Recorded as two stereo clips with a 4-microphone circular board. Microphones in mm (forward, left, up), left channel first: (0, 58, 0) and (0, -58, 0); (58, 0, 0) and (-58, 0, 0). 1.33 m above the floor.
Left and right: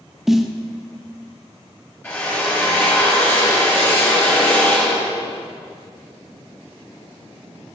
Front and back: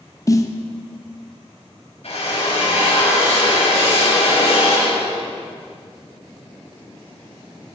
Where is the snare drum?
5° right, 0.6 m.